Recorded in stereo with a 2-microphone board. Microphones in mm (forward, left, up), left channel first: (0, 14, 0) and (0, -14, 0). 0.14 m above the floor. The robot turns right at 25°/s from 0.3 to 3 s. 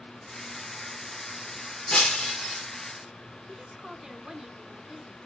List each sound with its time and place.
1.9 s breaking glass: 45° left (ahead or behind), 1.5 m; by 2.6 s 25° left (ahead or behind), 1.5 m
3.5 s a woman speaking: 10° right (ahead or behind), 1.4 m